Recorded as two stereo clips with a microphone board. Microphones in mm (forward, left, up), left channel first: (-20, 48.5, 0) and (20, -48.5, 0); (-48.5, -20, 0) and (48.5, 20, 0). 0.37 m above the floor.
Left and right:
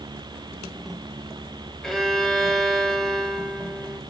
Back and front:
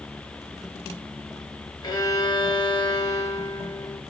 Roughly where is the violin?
Behind.